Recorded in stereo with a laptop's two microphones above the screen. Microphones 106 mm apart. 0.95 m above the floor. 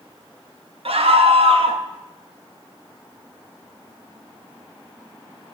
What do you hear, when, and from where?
0.8 s a scream: 70° right (ahead or behind), 1.0 m